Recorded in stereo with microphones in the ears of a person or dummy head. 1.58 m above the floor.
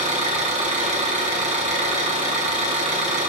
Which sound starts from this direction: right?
An engine running, at 0.0 s.